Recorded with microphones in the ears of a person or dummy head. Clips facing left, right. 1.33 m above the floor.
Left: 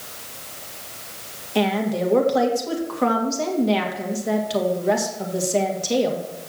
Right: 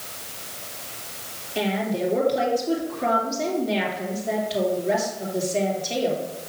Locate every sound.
1.6 s a woman speaking: 85° left, 2 m